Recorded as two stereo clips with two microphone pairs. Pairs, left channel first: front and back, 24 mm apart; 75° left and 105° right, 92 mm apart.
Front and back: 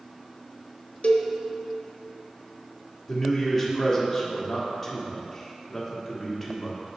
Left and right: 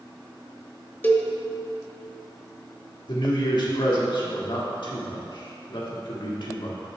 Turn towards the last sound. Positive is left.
turn(degrees=80)